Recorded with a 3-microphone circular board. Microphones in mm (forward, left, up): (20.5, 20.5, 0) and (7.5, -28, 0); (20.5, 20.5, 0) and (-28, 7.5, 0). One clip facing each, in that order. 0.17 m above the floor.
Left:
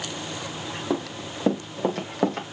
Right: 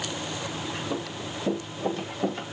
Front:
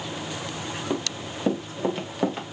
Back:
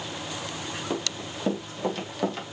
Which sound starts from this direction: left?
Running footsteps, at 0.9 s.